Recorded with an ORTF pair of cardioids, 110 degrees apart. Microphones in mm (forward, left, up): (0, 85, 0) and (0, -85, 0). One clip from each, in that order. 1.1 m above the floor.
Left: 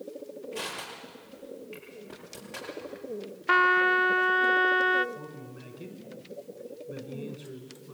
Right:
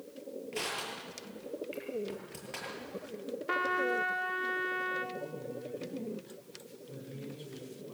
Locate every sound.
0.5 s crushing: 20° right, 9 m
3.5 s a trumpet: 50° left, 0.8 m
5.2 s a man speaking: 25° left, 4 m